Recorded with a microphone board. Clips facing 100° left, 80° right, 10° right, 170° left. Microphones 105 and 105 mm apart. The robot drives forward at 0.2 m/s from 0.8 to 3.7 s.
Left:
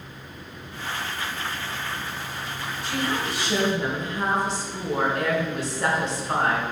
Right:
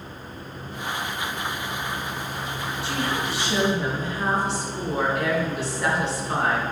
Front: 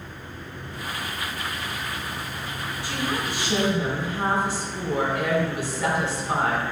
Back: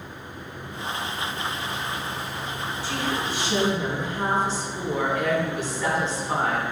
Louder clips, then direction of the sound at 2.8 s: Left 1 dB, even; 65° left.